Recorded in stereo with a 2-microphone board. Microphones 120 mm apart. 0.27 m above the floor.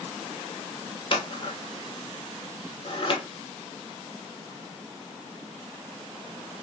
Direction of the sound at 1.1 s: 45° left (ahead or behind).